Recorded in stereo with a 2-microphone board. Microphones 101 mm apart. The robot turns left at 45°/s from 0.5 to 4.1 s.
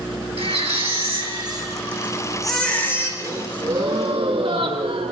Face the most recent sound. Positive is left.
turn(degrees=-80)